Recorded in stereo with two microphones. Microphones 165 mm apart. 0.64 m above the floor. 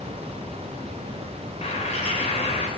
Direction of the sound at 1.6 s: 40° left (ahead or behind).